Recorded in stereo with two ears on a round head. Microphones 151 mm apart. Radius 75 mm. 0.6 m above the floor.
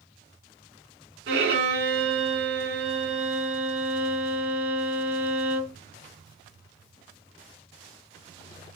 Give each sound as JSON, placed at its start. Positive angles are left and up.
{"t": 1.3, "sound": "a violin", "side_deg": -70, "distance_m": 2.5}